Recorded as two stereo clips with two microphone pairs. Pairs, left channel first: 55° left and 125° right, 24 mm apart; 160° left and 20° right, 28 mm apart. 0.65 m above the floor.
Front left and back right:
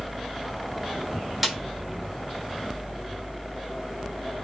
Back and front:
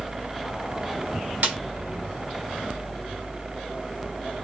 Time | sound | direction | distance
1.4 | a snare drum | 40° right | 1.1 m